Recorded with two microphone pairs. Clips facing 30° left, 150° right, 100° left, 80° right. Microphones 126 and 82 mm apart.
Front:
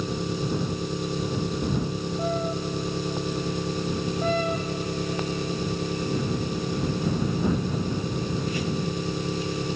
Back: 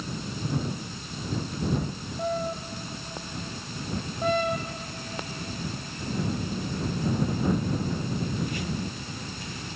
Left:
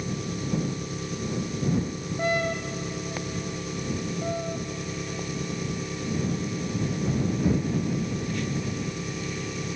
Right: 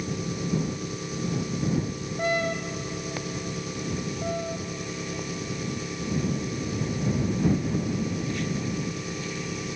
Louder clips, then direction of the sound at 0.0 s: Front 6 dB, right 1 dB; 10° left.